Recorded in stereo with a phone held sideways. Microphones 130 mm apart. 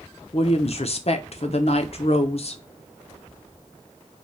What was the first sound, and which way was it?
A woman speaking, 50° left (ahead or behind).